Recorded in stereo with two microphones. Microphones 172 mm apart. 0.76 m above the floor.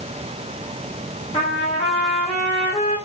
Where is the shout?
No shout in this recording.